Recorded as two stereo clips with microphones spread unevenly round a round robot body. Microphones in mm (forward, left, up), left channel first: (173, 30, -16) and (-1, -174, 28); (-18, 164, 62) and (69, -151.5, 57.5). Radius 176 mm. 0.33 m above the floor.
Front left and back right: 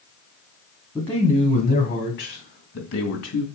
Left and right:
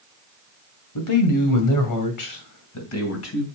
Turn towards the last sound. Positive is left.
turn(degrees=60)